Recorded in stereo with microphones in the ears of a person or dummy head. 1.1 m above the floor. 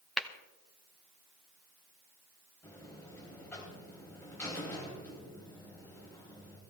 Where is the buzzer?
15° left (ahead or behind), 3.5 m.